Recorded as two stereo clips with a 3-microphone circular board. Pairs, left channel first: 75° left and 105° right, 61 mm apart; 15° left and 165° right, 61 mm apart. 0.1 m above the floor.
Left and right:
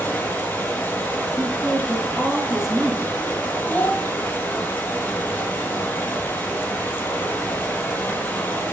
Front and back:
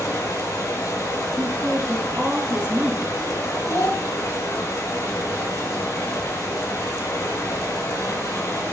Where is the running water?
25° left, 2.5 m.